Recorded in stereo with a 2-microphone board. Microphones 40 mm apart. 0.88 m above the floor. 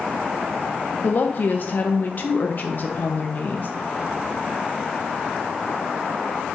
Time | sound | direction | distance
1.0 | a woman speaking | 45° left (ahead or behind) | 0.6 m